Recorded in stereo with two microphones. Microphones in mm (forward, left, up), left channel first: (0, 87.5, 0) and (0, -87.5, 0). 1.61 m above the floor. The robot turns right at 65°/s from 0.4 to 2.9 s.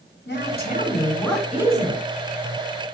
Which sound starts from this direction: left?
A woman speaking, at 0.3 s.